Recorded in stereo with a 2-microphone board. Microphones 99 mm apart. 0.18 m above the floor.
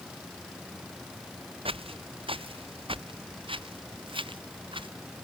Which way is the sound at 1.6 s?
65° right (ahead or behind).